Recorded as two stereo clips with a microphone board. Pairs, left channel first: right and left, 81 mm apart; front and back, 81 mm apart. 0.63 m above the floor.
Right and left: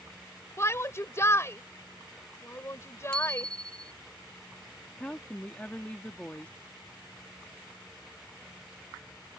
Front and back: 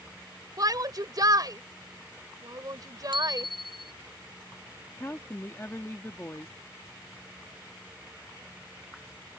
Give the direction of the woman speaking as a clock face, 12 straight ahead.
1 o'clock.